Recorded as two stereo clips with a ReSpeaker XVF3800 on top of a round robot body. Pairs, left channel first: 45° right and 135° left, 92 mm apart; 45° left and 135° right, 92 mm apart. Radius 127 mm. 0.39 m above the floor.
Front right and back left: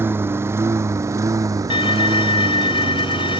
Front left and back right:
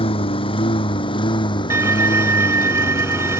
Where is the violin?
75° right.